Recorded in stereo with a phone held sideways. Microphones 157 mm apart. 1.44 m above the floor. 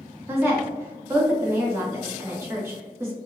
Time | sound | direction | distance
0.3 | a woman speaking | 15° right (ahead or behind) | 1.3 m